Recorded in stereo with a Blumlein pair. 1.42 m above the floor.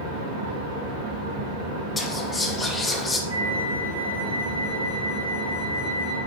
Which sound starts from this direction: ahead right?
A fan, at 0.0 s.